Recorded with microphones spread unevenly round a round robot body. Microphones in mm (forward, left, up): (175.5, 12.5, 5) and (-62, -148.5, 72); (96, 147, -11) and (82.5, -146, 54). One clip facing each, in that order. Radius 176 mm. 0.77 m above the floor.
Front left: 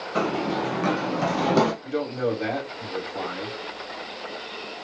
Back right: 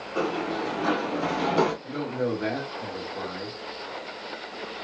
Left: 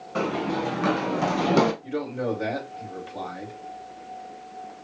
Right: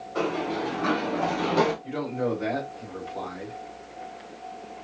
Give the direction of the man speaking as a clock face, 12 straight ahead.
10 o'clock.